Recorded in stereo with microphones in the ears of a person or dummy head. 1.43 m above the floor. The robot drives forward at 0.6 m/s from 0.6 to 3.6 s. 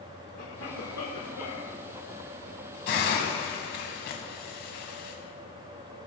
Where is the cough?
80° left, 2 m; by 1.8 s 75° left (ahead or behind), 2 m.